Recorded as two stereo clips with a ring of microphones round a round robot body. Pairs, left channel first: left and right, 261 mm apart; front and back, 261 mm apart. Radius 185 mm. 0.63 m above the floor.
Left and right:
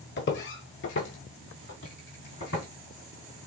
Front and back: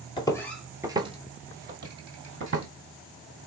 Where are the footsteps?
65° left, 0.8 m; by 2.7 s 150° left, 1.4 m.